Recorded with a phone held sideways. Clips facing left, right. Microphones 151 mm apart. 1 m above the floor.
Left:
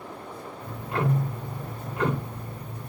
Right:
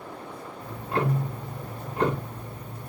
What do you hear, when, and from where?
0.6 s ticking: 30° right (ahead or behind), 0.9 m